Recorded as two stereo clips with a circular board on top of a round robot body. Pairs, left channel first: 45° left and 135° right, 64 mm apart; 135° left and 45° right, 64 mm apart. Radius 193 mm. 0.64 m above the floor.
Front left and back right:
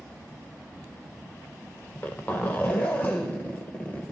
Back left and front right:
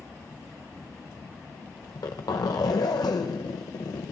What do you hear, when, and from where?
1.8 s a zipper: 110° left, 0.5 m